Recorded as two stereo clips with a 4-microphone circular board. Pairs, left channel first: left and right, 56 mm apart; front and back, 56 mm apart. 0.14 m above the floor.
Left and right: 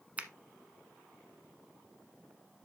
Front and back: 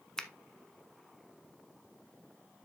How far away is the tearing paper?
I don't hear tearing paper.